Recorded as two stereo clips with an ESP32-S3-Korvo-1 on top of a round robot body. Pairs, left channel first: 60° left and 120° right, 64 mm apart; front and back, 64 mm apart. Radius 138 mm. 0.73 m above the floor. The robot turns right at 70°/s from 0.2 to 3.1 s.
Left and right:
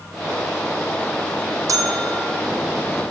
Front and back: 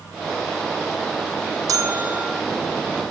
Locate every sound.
1.7 s a bell: 155° right, 1.0 m; by 2.4 s 105° right, 1.0 m